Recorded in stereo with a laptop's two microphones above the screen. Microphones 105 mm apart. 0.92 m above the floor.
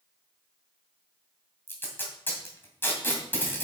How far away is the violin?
I don't hear a violin.